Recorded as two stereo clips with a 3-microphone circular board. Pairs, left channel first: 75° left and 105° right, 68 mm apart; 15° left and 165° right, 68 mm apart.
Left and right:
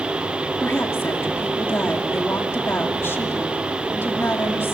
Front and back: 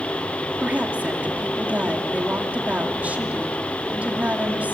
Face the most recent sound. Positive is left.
turn(degrees=130)